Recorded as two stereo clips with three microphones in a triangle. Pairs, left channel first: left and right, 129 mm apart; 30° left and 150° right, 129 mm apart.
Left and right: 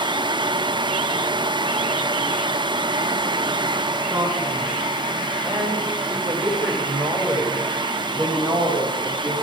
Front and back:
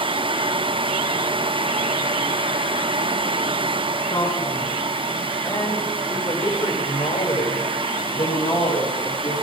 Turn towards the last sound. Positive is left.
turn(degrees=5)